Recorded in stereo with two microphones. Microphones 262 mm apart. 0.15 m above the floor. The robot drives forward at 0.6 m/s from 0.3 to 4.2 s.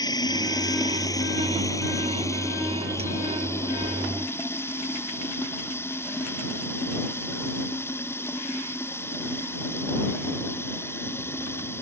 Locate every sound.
0.0 s running water: 15° left (ahead or behind); by 11.8 s 10° left (ahead or behind)